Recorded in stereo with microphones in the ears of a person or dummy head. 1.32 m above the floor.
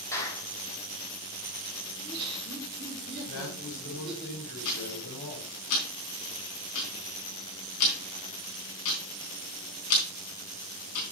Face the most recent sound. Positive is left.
turn(degrees=75)  # may be behind; listen again after turning